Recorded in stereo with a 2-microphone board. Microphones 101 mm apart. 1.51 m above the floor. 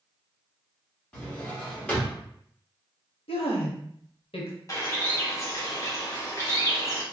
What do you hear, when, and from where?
1.1 s a drawer: 10° left (ahead or behind), 1.3 m
3.3 s a woman speaking: 80° left, 0.8 m
4.7 s a bird: 35° left (ahead or behind), 0.9 m